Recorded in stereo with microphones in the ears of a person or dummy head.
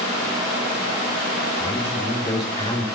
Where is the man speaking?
25° left (ahead or behind), 4.5 m.